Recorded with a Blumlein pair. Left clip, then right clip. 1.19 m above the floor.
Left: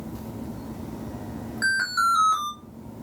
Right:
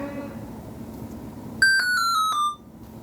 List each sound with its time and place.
1.6 s an alarm: 25° right, 1.4 m